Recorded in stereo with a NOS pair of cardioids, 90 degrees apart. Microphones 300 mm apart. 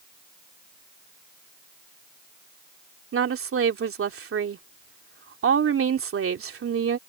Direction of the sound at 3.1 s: 45° right.